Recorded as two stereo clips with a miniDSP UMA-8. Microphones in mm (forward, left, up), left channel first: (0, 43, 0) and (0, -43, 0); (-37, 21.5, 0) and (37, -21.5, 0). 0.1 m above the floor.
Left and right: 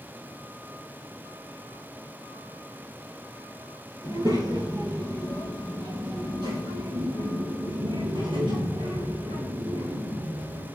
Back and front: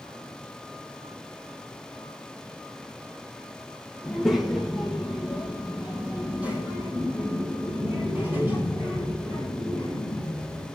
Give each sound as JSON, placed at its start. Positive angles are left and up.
{"t": 4.0, "sound": "a child speaking", "azimuth_deg": -125, "distance_m": 1.7}